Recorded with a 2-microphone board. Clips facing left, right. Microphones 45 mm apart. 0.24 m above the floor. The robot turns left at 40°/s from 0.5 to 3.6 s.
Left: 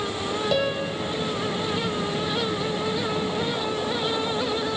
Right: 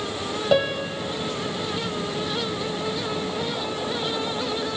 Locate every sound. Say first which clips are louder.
0.5 s a piano: right 6 dB; 25° right (ahead or behind), 1.6 m; by 1.0 s 45° right (ahead or behind), 1.6 m